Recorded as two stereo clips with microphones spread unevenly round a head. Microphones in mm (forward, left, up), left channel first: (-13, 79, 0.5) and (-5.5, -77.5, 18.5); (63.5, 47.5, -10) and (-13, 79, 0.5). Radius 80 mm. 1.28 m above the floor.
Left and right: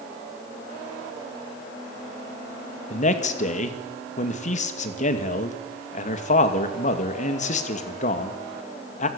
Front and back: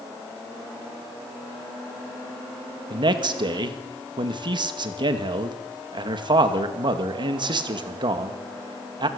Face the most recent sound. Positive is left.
turn(degrees=135)